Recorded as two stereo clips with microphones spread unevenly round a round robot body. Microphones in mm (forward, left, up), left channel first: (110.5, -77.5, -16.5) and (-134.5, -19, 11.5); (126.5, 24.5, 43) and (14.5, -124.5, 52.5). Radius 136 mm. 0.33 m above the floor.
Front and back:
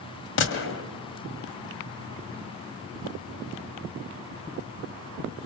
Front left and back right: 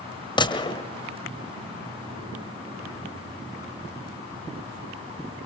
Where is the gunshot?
5° right, 1.5 m.